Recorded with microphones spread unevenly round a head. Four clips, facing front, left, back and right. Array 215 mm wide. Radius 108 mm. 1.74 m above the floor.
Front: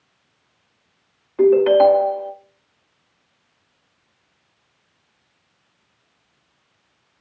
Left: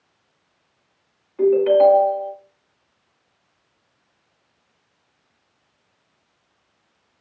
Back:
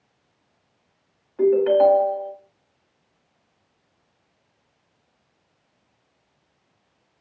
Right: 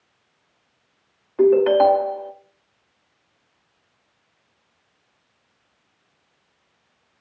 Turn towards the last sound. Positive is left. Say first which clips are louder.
# even, front 4 dB
turn(degrees=-45)